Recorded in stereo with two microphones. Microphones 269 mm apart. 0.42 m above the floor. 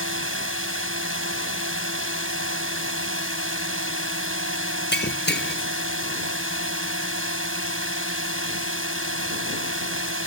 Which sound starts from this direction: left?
Breaking glass, at 4.9 s.